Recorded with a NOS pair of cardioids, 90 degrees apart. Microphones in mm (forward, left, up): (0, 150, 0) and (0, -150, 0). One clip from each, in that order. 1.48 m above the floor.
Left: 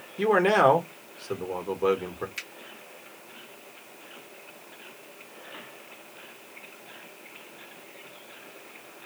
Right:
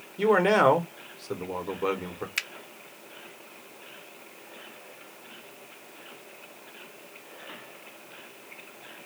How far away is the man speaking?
About 1.2 m.